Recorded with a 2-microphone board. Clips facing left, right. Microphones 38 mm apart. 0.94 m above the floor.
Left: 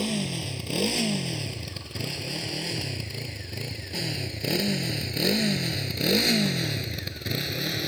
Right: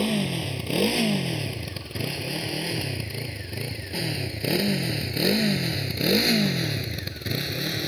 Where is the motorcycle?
15° right (ahead or behind); by 7.9 s centre (ahead or behind).